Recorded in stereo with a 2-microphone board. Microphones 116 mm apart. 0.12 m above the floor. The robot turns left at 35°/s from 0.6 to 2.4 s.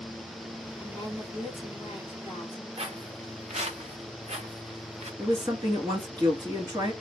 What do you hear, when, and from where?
0.8 s a woman speaking: 40° right, 2.5 m; by 2.6 s 95° right, 2.5 m
2.8 s footsteps: 60° right (ahead or behind), 1.0 m; by 5.1 s 75° right (ahead or behind), 1.8 m
5.2 s a woman speaking: 35° right (ahead or behind), 1.3 m